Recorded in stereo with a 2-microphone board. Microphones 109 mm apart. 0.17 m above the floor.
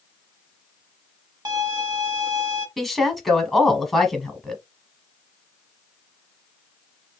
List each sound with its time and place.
1.4 s a violin: 35° right (ahead or behind), 0.9 m
2.8 s a woman speaking: centre (ahead or behind), 1.1 m